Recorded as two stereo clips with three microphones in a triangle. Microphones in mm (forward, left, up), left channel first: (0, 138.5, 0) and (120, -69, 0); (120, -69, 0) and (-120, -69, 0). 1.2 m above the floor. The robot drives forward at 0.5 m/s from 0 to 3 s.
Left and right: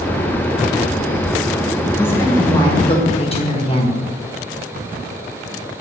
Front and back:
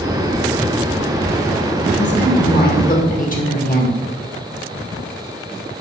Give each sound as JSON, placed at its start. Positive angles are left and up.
{"t": 1.9, "sound": "a woman speaking", "azimuth_deg": 40, "distance_m": 1.6}